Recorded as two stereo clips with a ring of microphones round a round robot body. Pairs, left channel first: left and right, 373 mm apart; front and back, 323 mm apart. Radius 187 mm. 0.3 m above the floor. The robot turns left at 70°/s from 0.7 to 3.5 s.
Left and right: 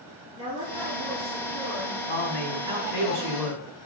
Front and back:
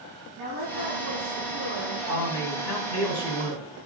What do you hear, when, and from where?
0.4 s a woman speaking: 165° right, 3.5 m; by 2.0 s 105° left, 3.5 m
2.1 s a man speaking: 30° left, 1.8 m; by 3.6 s 70° right, 1.8 m